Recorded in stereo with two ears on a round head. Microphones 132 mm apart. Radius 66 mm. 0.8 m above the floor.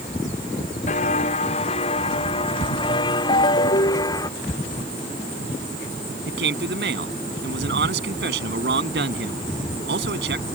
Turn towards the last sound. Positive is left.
turn(degrees=-85)